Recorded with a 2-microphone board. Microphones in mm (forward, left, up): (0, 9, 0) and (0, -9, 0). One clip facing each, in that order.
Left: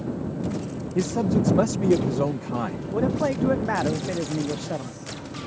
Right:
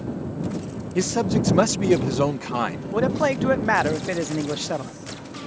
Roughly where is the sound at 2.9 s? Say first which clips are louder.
Right 2 dB; right.